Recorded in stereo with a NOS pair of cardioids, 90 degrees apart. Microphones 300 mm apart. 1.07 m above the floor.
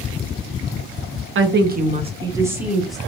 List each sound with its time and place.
1.4 s a woman speaking: 45° right, 0.9 m; by 3.0 s straight ahead, 1.6 m